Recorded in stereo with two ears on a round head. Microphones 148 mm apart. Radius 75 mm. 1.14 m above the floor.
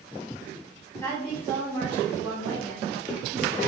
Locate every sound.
1.0 s a woman speaking: 10° left (ahead or behind), 2 m